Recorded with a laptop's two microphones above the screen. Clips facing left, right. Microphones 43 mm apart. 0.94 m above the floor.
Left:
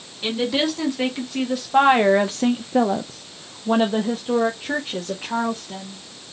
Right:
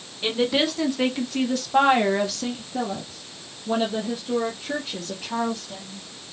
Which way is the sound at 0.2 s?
5° right (ahead or behind).